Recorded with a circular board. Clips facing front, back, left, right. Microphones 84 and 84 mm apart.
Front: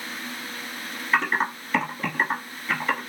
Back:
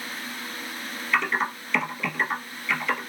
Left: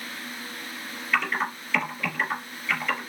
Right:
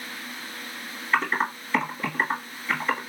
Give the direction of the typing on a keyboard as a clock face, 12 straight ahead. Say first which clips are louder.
Front 2 dB, right 2 dB; 1 o'clock.